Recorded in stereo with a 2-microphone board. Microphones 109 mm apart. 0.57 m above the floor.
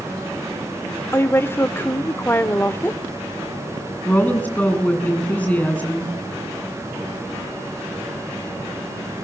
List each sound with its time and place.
1.1 s a woman speaking: 20° left (ahead or behind), 1.5 m
4.0 s a woman speaking: 15° left (ahead or behind), 7 m